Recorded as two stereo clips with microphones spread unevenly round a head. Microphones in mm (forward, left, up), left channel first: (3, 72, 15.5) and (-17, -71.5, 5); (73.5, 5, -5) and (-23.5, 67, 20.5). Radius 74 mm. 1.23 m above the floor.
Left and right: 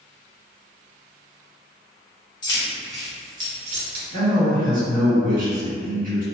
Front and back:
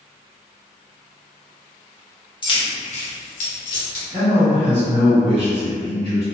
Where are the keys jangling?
20° left, 1.0 m; by 4.0 s 65° right, 0.9 m.